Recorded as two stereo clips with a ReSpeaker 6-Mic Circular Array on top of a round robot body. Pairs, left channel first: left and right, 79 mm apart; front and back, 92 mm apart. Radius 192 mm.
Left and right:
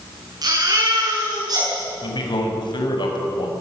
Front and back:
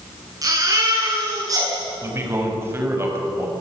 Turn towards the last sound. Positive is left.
turn(degrees=115)